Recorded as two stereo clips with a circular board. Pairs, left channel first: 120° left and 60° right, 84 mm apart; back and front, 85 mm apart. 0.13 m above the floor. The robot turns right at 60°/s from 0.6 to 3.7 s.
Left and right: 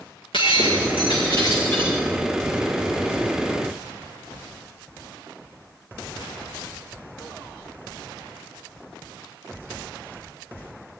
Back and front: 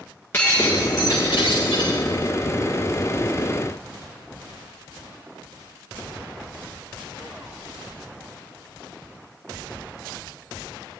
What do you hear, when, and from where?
0.3 s breaking glass: 115° left, 6 m; by 1.9 s 165° right, 6 m